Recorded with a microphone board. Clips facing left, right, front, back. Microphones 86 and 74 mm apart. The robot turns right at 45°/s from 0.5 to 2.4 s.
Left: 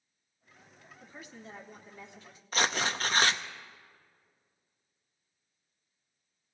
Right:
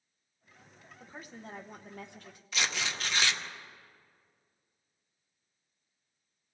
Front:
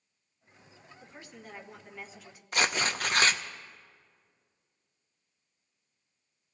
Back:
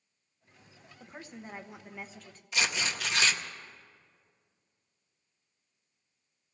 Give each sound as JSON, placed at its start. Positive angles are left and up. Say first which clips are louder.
{"t": 1.0, "sound": "a woman speaking", "louder": "right 2 dB, back 4 dB", "azimuth_deg": -140, "distance_m": 1.2}
{"t": 2.5, "sound": "tearing paper", "louder": "left 5 dB, front 3 dB", "azimuth_deg": 40, "distance_m": 0.6}